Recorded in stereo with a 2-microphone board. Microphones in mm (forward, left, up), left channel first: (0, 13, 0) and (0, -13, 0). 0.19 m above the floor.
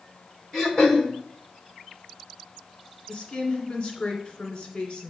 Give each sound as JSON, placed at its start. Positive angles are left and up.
{"t": 0.5, "sound": "throat clearing", "side_deg": 25, "distance_m": 2.5}
{"t": 3.1, "sound": "a woman speaking", "side_deg": 40, "distance_m": 2.0}